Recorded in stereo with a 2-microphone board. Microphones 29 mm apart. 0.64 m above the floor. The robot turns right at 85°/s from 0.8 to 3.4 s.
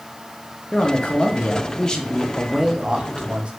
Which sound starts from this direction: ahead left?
A man speaking, at 0.7 s.